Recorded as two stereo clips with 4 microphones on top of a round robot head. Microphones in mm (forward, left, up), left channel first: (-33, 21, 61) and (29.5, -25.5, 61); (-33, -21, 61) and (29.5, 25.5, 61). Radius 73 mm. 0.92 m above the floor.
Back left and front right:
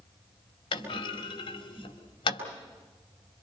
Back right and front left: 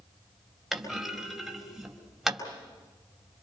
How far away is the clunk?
About 4.5 m.